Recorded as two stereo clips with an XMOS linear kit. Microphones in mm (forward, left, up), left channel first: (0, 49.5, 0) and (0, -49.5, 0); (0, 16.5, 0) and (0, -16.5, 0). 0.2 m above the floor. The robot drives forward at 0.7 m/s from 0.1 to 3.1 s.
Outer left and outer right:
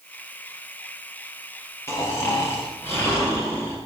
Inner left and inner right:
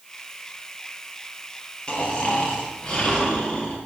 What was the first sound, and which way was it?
Snoring, 30° left (ahead or behind).